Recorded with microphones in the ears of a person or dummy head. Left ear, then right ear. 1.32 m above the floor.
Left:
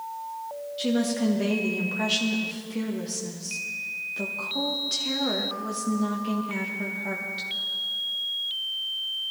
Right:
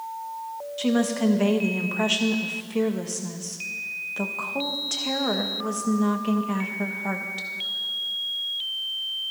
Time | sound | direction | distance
0.8 | a woman speaking | 35° right (ahead or behind) | 1.4 m